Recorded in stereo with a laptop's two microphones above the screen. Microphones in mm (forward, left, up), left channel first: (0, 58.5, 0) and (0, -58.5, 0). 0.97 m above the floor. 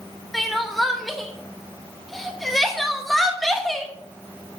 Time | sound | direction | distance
0.3 | crying | centre (ahead or behind) | 1.0 m